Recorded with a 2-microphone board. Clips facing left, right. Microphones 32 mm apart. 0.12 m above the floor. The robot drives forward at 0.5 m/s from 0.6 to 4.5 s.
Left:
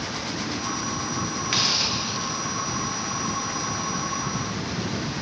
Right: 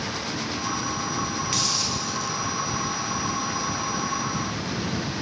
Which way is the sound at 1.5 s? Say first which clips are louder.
Left 7 dB; 30° left (ahead or behind).